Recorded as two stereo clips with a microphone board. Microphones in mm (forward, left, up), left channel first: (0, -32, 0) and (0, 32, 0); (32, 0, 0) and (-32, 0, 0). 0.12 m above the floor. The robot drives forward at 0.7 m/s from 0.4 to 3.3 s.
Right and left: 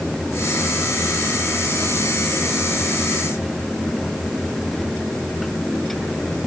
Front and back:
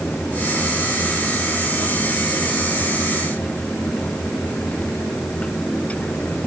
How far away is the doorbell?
I don't hear a doorbell.